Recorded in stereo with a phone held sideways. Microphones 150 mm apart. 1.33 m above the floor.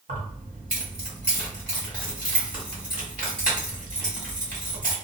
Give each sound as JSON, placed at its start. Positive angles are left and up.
{"t": 0.1, "sound": "keys jangling", "side_deg": -65, "distance_m": 1.7}